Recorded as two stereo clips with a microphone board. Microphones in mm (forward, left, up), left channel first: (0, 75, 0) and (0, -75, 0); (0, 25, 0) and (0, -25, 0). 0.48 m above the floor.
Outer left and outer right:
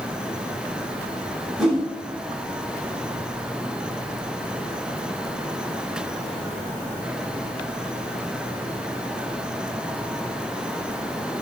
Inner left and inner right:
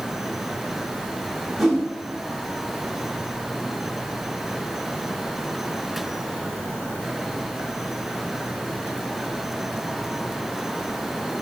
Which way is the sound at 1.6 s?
5° right (ahead or behind).